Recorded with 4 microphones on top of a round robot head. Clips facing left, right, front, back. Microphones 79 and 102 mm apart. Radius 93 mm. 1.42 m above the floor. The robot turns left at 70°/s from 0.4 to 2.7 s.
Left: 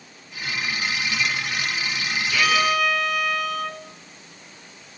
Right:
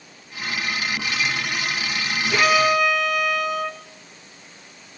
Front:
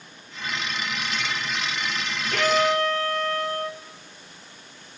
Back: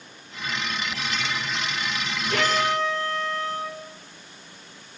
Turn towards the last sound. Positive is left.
turn(degrees=-175)